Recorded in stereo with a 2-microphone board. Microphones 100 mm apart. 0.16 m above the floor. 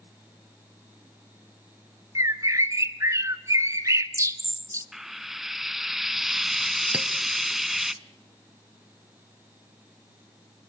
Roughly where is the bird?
Right.